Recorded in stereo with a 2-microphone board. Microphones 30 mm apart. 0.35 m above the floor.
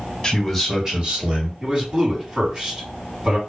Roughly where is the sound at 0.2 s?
Centre.